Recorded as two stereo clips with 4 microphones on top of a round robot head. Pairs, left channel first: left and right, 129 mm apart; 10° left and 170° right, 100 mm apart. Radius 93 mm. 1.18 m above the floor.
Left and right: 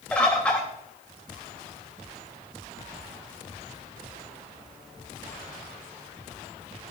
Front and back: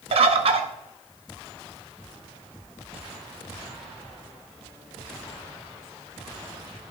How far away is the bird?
About 0.8 m.